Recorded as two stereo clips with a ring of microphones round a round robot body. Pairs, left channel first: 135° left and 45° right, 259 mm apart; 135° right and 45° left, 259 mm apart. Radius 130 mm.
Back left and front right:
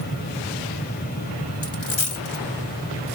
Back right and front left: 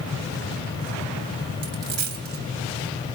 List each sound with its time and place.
1.6 s a dropped coin: 95° left, 3 m